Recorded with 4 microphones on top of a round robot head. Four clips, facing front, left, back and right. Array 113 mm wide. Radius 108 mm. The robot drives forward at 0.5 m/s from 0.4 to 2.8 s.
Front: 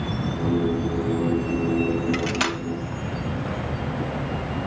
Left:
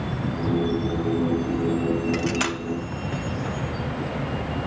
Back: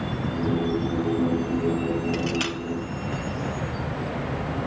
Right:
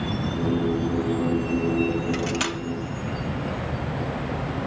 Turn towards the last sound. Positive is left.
turn(degrees=40)